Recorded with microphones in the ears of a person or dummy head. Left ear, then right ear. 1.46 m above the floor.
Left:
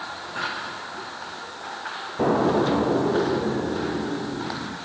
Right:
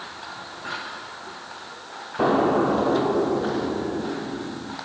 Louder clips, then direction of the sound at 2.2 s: Right 1 dB; 50° right (ahead or behind).